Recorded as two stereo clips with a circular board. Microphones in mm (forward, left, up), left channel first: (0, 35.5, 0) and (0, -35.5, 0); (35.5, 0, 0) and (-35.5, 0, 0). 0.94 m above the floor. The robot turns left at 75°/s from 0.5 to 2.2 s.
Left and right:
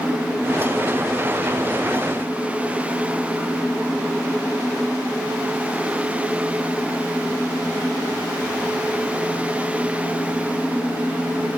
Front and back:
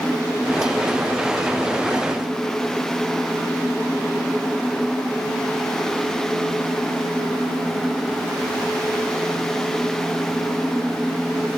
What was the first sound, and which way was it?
Only background noise.